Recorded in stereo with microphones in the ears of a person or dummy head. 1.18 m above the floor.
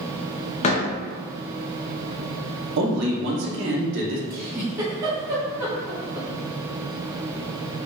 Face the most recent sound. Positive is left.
turn(degrees=-20)  # may be behind; listen again after turning